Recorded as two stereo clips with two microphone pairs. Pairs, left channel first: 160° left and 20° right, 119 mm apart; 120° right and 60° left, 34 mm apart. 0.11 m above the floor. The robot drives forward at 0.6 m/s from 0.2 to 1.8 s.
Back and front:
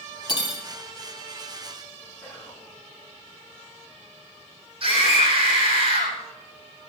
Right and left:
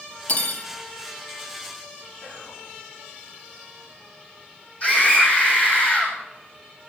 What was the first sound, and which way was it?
Cutlery clinking, 150° right.